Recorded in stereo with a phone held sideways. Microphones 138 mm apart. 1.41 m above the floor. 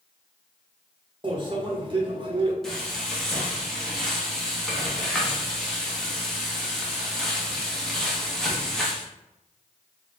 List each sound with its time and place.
1.2 s a microwave: 35° right (ahead or behind), 1.1 m
2.6 s frying: 5° left (ahead or behind), 1.2 m